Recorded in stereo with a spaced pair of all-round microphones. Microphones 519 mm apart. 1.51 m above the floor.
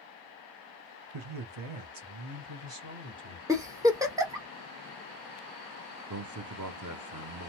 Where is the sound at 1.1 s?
60° right (ahead or behind), 0.7 m; by 3.4 s 45° right (ahead or behind), 1.6 m.